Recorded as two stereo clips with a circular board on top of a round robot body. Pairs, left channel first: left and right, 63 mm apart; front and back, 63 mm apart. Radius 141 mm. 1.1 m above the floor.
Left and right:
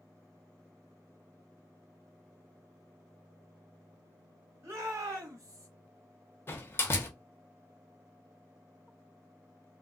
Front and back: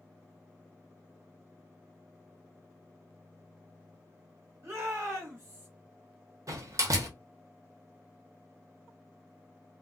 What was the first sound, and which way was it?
A shout, 135° right.